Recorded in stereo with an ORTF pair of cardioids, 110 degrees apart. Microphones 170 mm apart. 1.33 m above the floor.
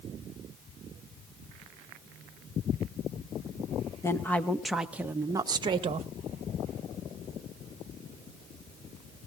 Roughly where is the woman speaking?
Ahead.